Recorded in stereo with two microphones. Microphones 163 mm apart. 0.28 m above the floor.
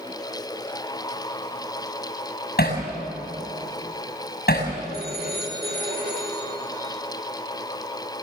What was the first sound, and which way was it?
Hammering, 75° left (ahead or behind).